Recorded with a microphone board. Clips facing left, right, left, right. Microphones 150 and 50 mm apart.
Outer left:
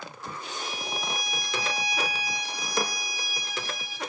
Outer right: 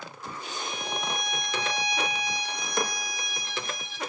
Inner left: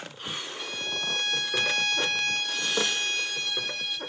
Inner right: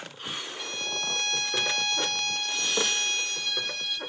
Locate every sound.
0.6 s a violin: 5° left (ahead or behind), 0.9 m